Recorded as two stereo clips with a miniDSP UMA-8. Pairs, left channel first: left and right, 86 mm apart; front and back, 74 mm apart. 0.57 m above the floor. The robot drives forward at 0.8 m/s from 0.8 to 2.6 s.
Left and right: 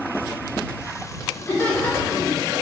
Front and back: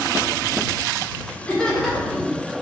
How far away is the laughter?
About 1.1 m.